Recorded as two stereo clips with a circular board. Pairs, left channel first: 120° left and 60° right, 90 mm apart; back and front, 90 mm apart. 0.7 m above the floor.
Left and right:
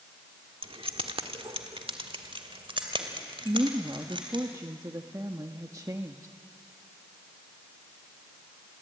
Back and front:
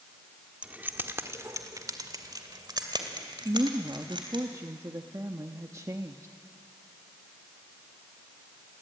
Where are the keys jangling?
75° right, 1.2 m; by 4.5 s 30° right, 3.5 m.